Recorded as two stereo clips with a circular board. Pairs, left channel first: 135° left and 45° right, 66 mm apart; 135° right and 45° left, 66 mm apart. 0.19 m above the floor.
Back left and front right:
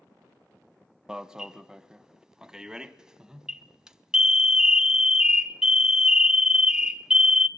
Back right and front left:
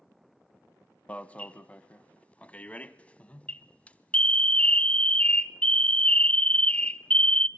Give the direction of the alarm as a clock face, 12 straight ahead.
4 o'clock.